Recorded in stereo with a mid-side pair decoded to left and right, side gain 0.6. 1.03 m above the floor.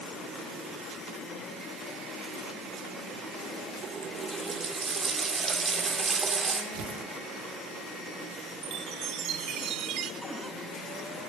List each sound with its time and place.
3.8 s a running tap: 30° right, 2.0 m
6.7 s tearing paper: 65° right, 1.5 m
8.6 s a chime: 60° right, 0.8 m
10.2 s a cupboard door: 15° right, 4 m